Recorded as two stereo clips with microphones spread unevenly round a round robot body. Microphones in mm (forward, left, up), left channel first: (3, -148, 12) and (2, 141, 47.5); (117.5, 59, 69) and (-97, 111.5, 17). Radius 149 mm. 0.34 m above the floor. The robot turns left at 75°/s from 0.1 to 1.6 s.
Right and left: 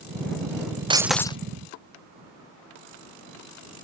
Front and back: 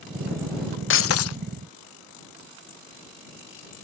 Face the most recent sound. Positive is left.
turn(degrees=-35)